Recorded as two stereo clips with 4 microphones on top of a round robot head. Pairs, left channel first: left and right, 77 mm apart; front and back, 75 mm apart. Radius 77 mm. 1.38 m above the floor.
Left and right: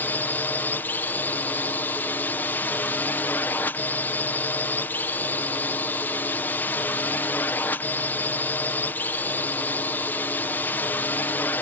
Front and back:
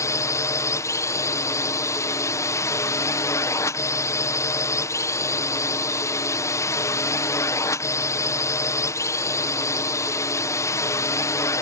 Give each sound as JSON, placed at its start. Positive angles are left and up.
{"t": 0.0, "sound": "a drone", "azimuth_deg": 30}